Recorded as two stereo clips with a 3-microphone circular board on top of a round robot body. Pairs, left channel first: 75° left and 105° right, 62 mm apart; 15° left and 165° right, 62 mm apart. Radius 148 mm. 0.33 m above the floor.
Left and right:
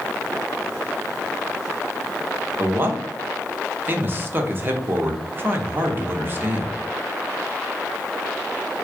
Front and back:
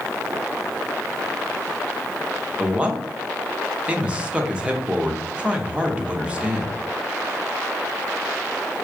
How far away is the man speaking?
About 1.1 m.